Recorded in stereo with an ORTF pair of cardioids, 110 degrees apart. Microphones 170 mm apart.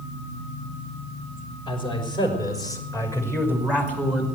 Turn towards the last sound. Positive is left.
turn(degrees=5)